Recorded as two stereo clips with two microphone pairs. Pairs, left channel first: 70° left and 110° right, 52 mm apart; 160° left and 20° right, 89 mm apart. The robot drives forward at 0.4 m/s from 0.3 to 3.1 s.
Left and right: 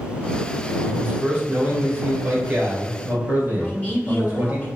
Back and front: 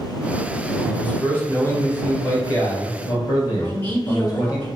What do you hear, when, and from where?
0.8 s a man speaking: 140° right, 1.4 m; by 4.6 s 160° right, 2.0 m
3.6 s a man speaking: 115° left, 1.3 m